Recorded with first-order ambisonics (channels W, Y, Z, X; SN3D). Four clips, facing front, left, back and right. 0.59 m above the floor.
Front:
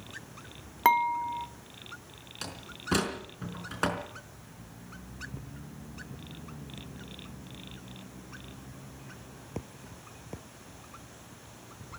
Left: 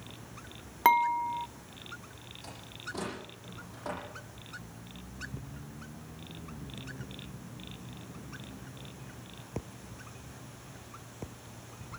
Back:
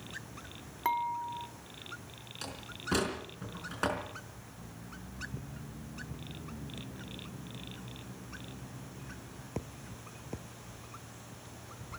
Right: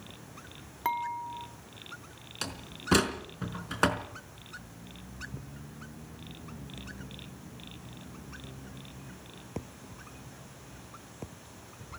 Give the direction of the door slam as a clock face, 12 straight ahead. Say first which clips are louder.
Right 6 dB, front 1 dB; 3 o'clock.